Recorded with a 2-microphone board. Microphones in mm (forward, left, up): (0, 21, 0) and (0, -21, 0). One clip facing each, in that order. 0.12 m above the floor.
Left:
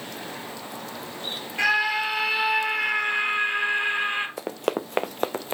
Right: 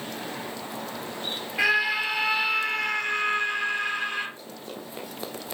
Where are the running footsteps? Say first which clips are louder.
Left 12 dB; 85° left, 0.8 m; by 5.5 s 35° left (ahead or behind), 0.9 m.